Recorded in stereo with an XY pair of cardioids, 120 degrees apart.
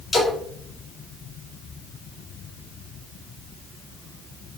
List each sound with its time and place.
0.1 s a splash: 15° left, 2 m